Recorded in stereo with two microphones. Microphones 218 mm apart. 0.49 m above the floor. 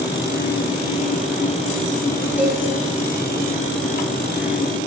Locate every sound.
2.4 s a cowbell: 10° right (ahead or behind), 4.5 m